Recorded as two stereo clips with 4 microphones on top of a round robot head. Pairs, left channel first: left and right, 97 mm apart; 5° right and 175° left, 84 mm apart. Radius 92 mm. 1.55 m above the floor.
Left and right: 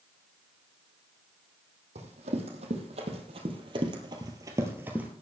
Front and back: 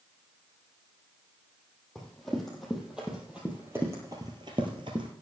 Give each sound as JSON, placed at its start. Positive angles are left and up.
{"t": 1.9, "sound": "running footsteps", "azimuth_deg": -95, "distance_m": 3.5}